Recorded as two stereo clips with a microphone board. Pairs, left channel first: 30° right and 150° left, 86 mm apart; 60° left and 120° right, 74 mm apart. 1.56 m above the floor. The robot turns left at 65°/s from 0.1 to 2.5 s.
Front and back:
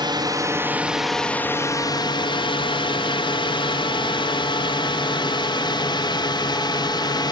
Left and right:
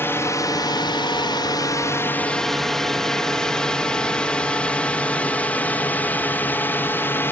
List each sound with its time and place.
0.0 s a drone: 120° left; by 7.3 s straight ahead